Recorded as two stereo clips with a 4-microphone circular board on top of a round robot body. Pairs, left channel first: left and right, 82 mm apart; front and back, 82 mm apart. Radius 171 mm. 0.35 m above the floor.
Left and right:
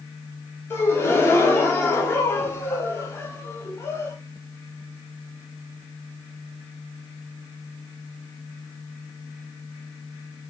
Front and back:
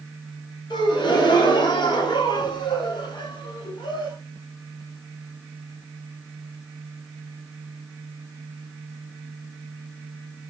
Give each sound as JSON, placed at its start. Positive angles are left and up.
{"t": 0.7, "sound": "a gasp", "azimuth_deg": 30, "distance_m": 0.8}